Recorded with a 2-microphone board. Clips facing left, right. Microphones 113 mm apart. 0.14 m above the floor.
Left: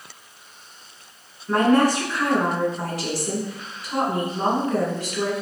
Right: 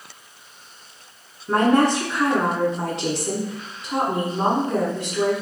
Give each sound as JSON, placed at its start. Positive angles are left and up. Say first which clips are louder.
{"t": 1.5, "sound": "a woman speaking", "louder": "even", "side_deg": -25, "distance_m": 1.1}